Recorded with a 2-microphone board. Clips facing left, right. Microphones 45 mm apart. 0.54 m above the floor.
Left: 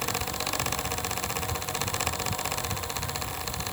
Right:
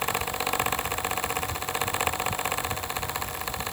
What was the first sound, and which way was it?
Only background noise.